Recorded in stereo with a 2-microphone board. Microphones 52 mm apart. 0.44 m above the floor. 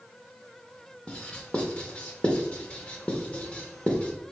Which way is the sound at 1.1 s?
25° left (ahead or behind).